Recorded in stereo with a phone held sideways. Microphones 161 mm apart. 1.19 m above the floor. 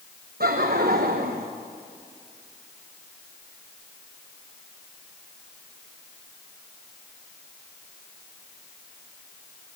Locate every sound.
0.4 s laughter: 70° right (ahead or behind), 1.1 m